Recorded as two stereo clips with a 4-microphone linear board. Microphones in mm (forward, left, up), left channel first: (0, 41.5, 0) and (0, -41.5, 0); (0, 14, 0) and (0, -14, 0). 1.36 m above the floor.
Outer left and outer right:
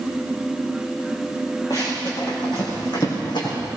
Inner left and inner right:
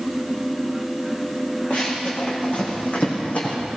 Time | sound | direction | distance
1.7 | running footsteps | 55° left (ahead or behind) | 6 m